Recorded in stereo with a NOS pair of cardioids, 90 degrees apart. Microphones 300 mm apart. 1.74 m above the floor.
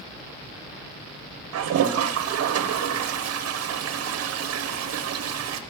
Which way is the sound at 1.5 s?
55° right.